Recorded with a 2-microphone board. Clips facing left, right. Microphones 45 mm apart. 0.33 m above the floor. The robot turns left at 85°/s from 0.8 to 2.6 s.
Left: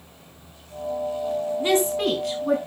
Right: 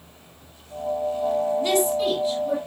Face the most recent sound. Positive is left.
turn(degrees=70)